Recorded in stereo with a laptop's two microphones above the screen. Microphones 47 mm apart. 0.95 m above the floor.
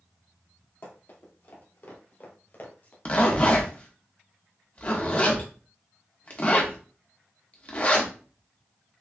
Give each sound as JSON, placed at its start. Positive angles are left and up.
{"t": 0.8, "sound": "running footsteps", "side_deg": 55, "distance_m": 1.9}
{"t": 3.0, "sound": "a zipper", "side_deg": 30, "distance_m": 0.7}